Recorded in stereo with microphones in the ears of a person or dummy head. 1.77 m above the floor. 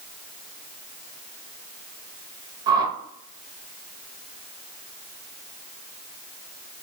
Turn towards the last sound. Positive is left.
turn(degrees=-25)  # may be behind; listen again after turning